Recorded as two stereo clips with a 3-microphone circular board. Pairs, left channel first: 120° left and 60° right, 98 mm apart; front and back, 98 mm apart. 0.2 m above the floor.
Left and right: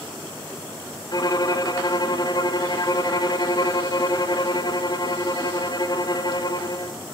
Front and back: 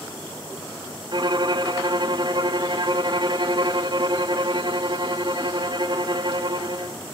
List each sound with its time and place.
1.1 s a violin: 155° left, 0.9 m